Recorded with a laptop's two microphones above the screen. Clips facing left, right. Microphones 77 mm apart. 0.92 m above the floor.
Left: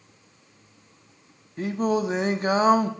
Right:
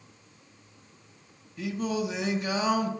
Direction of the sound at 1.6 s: 40° left (ahead or behind).